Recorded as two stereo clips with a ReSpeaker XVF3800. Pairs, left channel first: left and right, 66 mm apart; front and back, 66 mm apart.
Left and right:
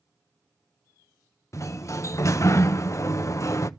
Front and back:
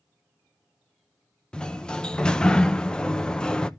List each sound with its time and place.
1.5 s a sliding door: 70° left, 0.6 m